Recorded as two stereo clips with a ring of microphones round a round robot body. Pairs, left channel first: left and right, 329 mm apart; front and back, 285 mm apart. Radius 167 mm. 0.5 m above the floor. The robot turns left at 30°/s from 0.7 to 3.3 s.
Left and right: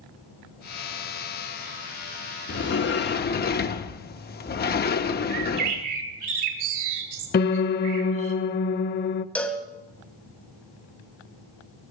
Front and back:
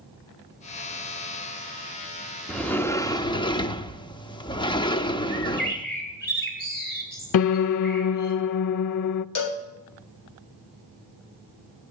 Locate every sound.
2.5 s a sliding door: 85° left, 0.8 m; by 5.8 s 60° left, 0.8 m
5.3 s a bird: 60° right, 3 m
7.3 s a piano: 25° left, 0.5 m
9.3 s a cowbell: 5° left, 1.6 m